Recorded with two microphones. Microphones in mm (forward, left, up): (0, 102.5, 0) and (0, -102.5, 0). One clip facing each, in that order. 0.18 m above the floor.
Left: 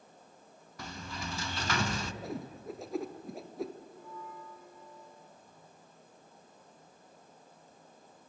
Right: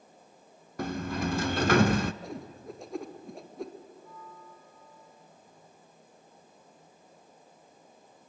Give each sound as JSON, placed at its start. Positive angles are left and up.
{"t": 0.8, "sound": "a sliding door", "side_deg": -55, "distance_m": 0.6}
{"t": 2.2, "sound": "a whoosh", "side_deg": 0, "distance_m": 1.7}
{"t": 3.9, "sound": "a bell", "side_deg": 75, "distance_m": 7.0}